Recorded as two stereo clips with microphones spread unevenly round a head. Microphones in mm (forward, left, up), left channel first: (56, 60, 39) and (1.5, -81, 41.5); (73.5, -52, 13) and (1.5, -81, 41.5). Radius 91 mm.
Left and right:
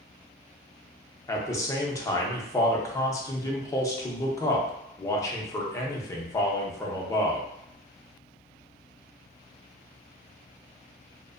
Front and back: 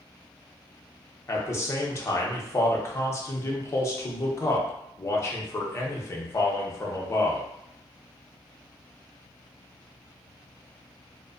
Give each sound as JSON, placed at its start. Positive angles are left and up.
{"t": 1.3, "sound": "a man speaking", "azimuth_deg": 5, "distance_m": 0.7}